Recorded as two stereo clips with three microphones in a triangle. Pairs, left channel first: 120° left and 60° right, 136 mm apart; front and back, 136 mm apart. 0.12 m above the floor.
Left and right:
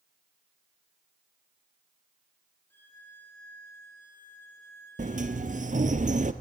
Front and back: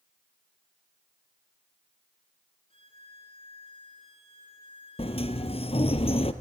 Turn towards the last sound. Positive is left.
turn(degrees=-40)